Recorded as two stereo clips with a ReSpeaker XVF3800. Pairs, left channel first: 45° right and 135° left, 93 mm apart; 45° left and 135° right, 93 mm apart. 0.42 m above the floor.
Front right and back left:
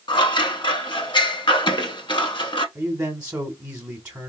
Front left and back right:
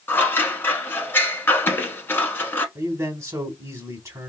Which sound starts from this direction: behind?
A man speaking, at 2.8 s.